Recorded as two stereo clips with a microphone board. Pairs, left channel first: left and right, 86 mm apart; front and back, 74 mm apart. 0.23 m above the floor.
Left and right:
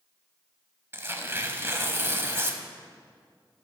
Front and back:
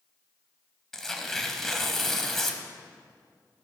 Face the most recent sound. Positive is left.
turn(degrees=-80)